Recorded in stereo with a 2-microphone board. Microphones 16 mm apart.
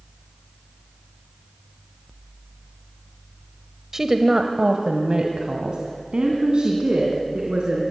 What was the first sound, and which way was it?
A woman speaking, 25° right (ahead or behind).